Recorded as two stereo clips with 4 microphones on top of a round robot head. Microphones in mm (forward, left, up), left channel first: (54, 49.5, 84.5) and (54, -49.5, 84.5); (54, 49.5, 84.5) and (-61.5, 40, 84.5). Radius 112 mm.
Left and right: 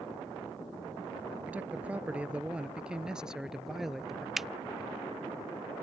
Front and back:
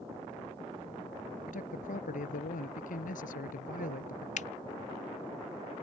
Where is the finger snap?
5° right.